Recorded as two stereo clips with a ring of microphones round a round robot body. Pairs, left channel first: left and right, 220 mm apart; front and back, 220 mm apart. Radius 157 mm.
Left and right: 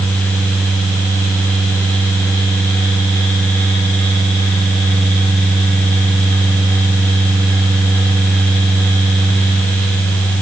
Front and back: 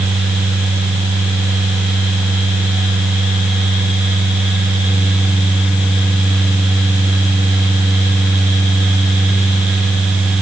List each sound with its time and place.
Only background noise.